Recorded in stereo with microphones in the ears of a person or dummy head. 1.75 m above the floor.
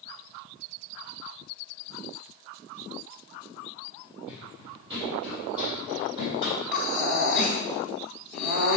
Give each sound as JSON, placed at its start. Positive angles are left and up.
{"t": 4.3, "sound": "running footsteps", "side_deg": -10, "distance_m": 2.5}
{"t": 6.7, "sound": "breathing", "side_deg": -5, "distance_m": 2.5}